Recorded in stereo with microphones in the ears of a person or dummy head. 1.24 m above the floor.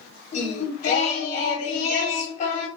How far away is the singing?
About 1.3 m.